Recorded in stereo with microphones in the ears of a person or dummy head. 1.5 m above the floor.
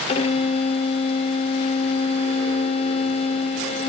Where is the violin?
35° left (ahead or behind).